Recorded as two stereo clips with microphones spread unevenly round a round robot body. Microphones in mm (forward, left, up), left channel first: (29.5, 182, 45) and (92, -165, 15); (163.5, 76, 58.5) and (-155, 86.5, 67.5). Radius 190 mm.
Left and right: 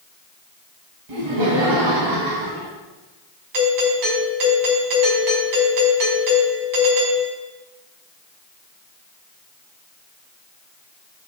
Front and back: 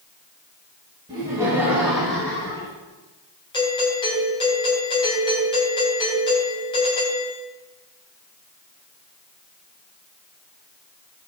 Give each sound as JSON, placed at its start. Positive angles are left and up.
{"t": 1.1, "sound": "laughter", "azimuth_deg": -105, "distance_m": 3.0}
{"t": 3.5, "sound": "a doorbell", "azimuth_deg": -75, "distance_m": 3.5}